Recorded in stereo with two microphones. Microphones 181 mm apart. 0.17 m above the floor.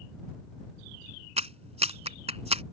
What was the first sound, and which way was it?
A clap, 35° right (ahead or behind).